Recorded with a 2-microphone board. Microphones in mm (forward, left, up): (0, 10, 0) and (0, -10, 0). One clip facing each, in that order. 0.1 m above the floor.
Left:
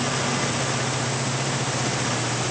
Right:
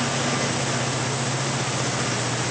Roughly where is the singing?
No singing in this recording.